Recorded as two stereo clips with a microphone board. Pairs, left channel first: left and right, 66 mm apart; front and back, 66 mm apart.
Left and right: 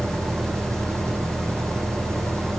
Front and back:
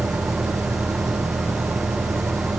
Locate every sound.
0.0 s an engine running: 135° right, 8 m